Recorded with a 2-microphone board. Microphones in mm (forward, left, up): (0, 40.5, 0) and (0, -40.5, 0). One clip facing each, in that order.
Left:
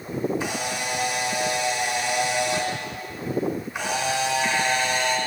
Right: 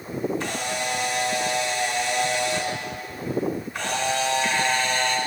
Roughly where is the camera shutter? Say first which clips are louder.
Even; centre.